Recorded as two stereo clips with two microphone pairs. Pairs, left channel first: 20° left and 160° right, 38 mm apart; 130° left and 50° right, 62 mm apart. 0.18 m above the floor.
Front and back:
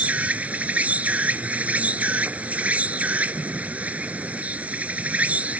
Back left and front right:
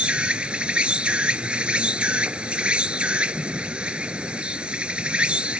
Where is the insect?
120° right.